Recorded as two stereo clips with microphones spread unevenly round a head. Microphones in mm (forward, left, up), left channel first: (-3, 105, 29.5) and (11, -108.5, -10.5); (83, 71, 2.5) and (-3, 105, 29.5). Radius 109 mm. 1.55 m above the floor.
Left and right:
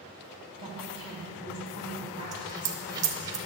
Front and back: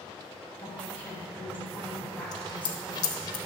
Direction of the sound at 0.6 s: 55° left.